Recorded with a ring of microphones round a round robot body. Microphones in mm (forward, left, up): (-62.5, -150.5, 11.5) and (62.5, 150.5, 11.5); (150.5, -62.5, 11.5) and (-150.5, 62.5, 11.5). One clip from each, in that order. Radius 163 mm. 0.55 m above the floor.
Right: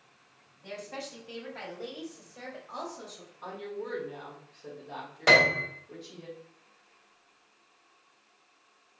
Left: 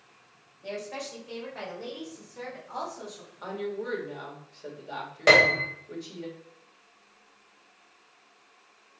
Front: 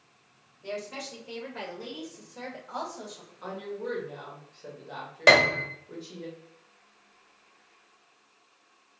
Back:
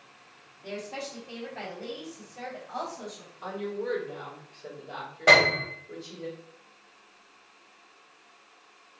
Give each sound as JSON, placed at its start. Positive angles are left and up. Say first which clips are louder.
{"t": 0.6, "sound": "a woman speaking", "louder": "left 4 dB, even", "azimuth_deg": 15, "distance_m": 3.0}
{"t": 3.4, "sound": "a woman speaking", "louder": "left 5 dB, back 3 dB", "azimuth_deg": 55, "distance_m": 2.0}
{"t": 5.3, "sound": "a piano", "louder": "left 2 dB, even", "azimuth_deg": -20, "distance_m": 1.7}